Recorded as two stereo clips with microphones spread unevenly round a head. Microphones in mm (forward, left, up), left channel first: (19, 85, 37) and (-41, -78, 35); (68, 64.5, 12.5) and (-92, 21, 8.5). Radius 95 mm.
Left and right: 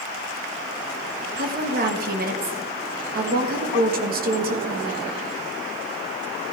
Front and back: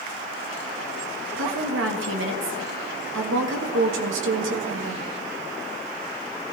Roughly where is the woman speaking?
Behind right.